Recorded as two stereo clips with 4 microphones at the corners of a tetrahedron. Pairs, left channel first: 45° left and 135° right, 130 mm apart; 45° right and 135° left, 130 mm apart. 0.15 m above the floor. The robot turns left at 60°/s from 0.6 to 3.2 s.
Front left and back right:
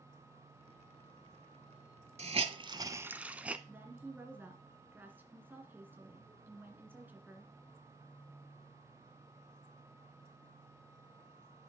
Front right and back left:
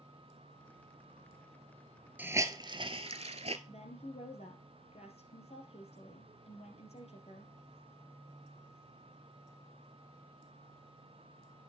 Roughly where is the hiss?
Behind right.